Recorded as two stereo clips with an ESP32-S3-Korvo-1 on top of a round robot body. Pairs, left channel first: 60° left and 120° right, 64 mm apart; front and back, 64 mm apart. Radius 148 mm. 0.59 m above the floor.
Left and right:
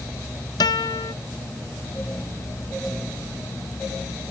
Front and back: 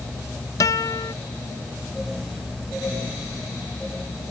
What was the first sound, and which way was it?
A guitar, 40° left.